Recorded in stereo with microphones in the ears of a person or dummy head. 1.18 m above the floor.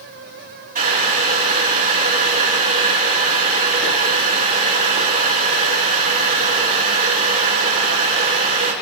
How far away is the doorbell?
No doorbell in this recording.